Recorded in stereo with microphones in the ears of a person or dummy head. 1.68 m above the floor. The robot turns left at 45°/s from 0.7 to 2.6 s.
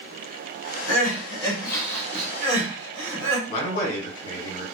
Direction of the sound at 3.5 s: 55° left (ahead or behind).